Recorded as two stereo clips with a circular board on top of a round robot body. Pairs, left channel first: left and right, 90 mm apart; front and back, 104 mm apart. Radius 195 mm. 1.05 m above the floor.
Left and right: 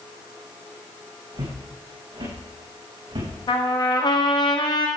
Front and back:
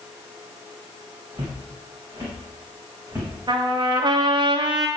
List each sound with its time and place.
1.3 s footsteps: 120° right, 5 m; by 3.3 s 115° right, 6 m
3.5 s a trumpet: 135° left, 1.0 m